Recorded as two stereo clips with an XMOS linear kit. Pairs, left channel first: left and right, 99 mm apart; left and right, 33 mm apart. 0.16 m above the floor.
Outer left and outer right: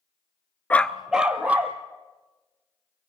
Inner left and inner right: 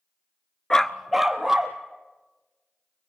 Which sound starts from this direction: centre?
A dog barking, at 0.7 s.